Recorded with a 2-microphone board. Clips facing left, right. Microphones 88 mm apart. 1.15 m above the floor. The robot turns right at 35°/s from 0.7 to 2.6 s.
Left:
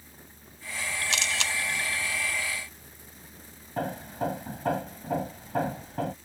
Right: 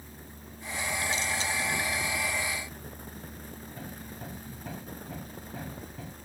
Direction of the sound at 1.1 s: 90° left.